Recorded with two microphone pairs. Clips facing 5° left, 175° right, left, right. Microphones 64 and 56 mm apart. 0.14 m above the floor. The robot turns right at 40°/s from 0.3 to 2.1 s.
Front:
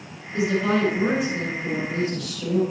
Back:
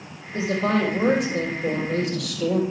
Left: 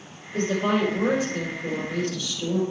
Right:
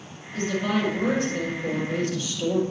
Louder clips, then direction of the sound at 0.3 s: Front 1 dB, left 2 dB; 130° left.